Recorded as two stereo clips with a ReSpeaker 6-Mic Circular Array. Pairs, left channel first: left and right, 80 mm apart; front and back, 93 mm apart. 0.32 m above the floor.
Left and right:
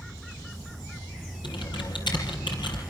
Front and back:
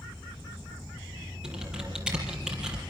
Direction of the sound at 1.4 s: 100° left.